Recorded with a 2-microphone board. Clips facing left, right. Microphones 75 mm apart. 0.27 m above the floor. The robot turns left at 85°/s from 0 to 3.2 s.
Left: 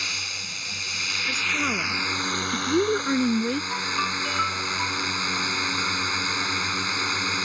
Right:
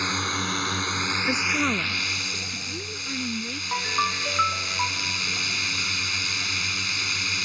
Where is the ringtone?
20° right (ahead or behind).